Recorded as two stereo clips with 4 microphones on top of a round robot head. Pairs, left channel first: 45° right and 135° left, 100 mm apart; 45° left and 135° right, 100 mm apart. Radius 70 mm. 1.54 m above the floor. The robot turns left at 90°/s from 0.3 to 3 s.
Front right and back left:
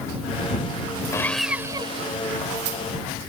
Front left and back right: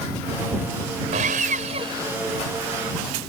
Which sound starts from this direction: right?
Sawing, at 1.1 s.